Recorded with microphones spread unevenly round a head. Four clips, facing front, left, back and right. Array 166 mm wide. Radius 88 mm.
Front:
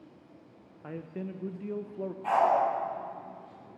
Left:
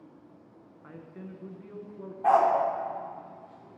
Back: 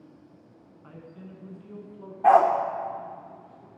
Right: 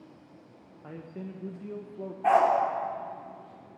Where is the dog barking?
Straight behind, 1.5 m.